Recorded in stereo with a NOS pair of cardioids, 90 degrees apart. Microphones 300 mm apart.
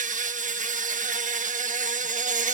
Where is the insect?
25° right.